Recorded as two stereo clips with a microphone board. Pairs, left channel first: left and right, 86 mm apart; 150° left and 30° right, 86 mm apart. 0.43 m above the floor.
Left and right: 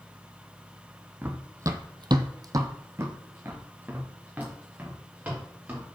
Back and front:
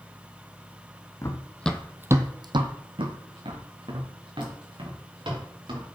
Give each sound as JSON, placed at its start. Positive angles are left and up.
{"t": 1.2, "sound": "running footsteps", "azimuth_deg": -160, "distance_m": 1.1}